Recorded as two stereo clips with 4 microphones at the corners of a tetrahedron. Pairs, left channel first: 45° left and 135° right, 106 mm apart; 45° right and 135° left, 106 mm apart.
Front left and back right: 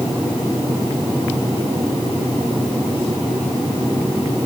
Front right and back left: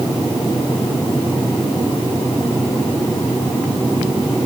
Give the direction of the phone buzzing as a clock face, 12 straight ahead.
No phone buzzing in this recording.